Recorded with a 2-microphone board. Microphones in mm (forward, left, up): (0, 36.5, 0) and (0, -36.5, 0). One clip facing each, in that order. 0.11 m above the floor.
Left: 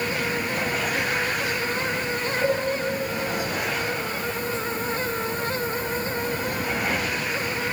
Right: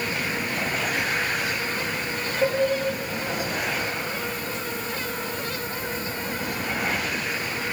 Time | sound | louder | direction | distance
2.4 | dishes clattering | right 1 dB | 30° right (ahead or behind) | 3.5 m